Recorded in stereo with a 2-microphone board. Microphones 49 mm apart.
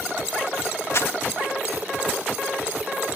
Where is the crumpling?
65° left (ahead or behind).